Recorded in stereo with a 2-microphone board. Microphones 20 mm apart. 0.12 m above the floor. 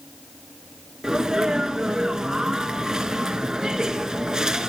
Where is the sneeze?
30° right (ahead or behind), 1.5 m.